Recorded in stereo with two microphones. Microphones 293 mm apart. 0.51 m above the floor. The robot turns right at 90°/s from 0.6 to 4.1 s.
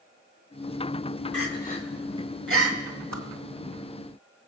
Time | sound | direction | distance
1.3 | crying | 55° left (ahead or behind) | 1.7 m
3.1 | a whoosh | 60° right (ahead or behind) | 1.6 m